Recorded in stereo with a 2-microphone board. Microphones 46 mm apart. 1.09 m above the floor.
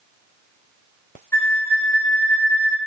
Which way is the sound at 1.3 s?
60° left (ahead or behind).